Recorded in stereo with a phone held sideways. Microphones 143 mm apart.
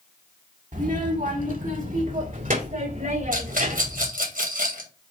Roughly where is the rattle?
Right.